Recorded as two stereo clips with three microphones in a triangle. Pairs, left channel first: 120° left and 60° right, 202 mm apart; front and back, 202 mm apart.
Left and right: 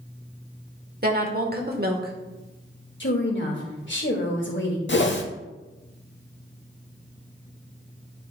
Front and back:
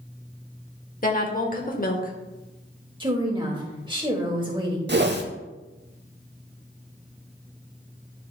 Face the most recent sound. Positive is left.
turn(degrees=150)